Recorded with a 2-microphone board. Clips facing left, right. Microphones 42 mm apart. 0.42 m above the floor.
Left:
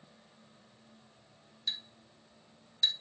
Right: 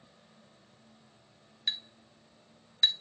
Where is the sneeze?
No sneeze in this recording.